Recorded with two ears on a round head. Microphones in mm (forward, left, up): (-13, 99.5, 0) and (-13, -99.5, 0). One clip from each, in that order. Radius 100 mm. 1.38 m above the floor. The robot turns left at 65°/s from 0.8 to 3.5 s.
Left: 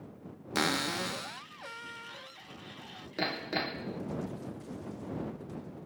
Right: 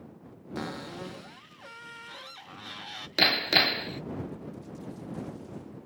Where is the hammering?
65° right (ahead or behind); by 4.0 s 85° right.